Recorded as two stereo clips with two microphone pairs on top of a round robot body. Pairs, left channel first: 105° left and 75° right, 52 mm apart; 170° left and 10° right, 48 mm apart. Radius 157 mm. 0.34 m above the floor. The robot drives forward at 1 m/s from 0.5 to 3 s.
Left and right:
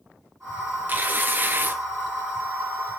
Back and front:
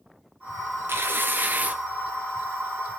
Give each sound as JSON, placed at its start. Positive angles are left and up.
{"t": 0.9, "sound": "tearing paper", "azimuth_deg": -35, "distance_m": 2.5}